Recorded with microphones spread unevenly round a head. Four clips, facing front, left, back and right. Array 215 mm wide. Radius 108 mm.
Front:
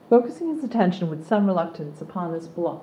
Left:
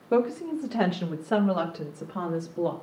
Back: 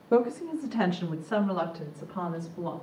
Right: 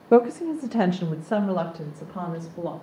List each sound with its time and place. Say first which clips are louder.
0.1 s a woman speaking: right 6 dB, front 6 dB; 35° right, 0.7 m; by 2.7 s 5° left, 2 m